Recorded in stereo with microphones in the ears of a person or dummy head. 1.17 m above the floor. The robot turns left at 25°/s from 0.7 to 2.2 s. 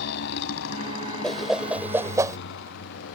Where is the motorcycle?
65° left (ahead or behind); by 3.1 s 85° left.